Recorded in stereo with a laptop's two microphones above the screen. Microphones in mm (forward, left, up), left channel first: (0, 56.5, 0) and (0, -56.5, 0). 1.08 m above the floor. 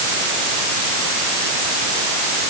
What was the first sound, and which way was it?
Only background noise.